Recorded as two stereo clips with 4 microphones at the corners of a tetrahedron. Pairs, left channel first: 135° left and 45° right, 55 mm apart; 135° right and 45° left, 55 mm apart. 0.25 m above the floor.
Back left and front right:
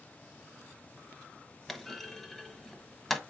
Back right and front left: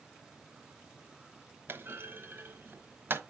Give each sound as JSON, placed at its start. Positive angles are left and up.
{"t": 1.7, "sound": "a clunk", "azimuth_deg": 50, "distance_m": 1.0}